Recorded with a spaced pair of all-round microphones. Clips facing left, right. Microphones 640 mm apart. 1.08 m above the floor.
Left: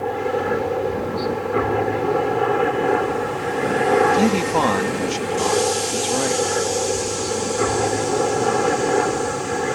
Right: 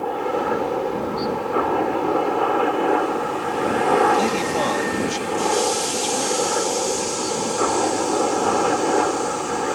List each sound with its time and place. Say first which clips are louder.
0.0 s a helicopter: left 1 dB; 45° left (ahead or behind)
4.2 s a man speaking: left 3 dB; 75° left (ahead or behind)